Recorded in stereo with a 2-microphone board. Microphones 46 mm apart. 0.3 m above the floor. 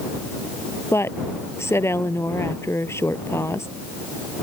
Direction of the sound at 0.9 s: 75° left (ahead or behind).